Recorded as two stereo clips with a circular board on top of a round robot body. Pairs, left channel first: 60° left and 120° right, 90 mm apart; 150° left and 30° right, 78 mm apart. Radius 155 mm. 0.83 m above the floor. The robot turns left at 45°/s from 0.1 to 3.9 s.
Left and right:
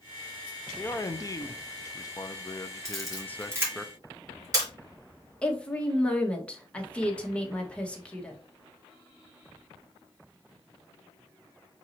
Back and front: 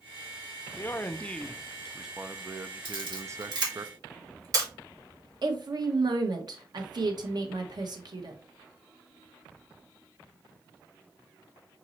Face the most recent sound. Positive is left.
turn(degrees=-15)